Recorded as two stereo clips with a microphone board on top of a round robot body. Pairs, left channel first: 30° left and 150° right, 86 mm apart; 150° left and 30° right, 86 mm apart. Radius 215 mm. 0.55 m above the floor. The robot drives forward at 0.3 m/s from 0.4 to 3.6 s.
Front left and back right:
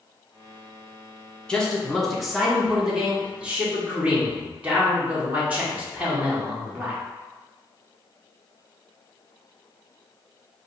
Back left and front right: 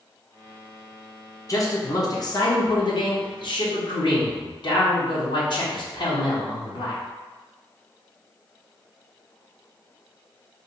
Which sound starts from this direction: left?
A man speaking, at 1.5 s.